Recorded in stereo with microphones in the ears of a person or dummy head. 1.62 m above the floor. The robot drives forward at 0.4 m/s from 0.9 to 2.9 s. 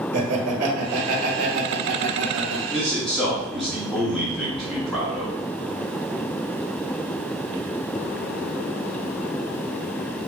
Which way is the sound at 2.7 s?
Centre (ahead or behind).